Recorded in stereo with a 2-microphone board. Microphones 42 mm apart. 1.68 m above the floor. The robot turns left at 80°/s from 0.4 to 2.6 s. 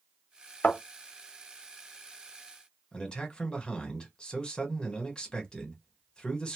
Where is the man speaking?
20° left (ahead or behind), 1.3 m.